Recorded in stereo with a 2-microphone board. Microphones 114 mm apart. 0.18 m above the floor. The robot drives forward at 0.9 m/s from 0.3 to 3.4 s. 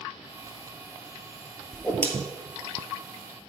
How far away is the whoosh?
About 1.7 m.